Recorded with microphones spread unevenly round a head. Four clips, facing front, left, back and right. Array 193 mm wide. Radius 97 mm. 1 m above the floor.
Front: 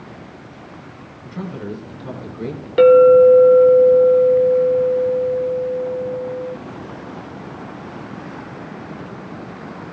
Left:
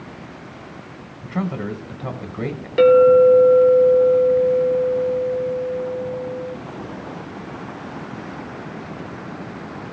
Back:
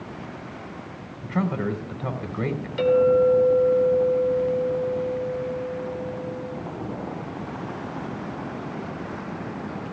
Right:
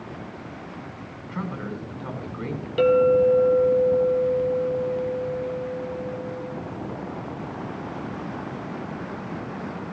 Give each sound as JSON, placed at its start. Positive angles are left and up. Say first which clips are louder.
{"t": 1.2, "sound": "a man speaking", "louder": "left 7 dB, back 4 dB", "azimuth_deg": 135, "distance_m": 3.5}
{"t": 2.8, "sound": "a clink", "louder": "left 7 dB, front 10 dB", "azimuth_deg": 20, "distance_m": 1.6}